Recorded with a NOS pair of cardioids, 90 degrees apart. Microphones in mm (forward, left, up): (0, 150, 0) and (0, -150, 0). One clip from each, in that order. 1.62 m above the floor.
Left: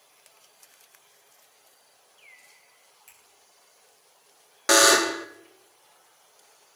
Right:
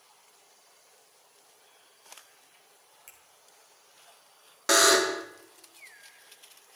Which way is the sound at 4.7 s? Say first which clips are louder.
Left 3 dB; 15° left.